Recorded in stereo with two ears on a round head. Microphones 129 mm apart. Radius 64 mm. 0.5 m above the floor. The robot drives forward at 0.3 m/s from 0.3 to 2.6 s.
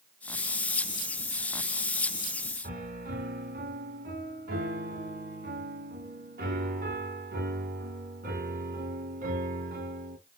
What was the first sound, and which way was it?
A piano, 60° right (ahead or behind).